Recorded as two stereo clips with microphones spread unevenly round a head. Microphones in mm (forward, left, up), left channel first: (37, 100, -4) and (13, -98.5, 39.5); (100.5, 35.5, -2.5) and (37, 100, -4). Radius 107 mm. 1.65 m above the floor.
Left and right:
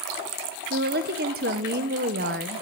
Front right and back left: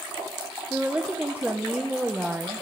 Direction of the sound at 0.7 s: 140° right.